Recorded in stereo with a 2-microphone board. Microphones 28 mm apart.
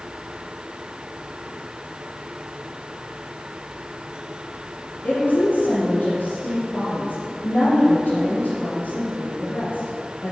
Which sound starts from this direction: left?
A woman speaking, at 5.0 s.